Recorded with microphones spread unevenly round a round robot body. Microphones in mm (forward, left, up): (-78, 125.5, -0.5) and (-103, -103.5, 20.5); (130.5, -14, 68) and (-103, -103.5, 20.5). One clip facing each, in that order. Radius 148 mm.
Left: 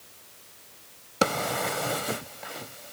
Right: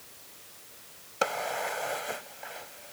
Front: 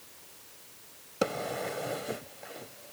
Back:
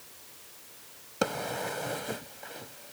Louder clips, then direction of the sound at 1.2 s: Left 5 dB, front 1 dB; 115° left.